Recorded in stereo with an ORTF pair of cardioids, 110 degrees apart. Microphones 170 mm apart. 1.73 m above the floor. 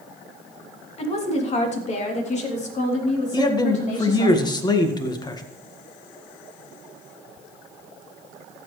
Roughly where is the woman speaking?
Ahead left.